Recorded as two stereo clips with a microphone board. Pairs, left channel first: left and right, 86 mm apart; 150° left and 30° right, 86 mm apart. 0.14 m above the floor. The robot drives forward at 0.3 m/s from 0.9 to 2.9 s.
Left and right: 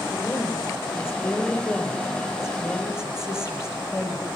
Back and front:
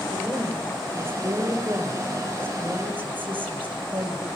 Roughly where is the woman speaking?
Ahead left.